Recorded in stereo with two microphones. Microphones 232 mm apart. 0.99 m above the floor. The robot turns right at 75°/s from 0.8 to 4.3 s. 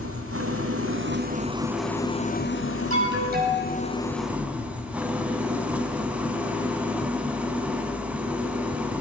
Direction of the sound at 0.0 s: 75° right.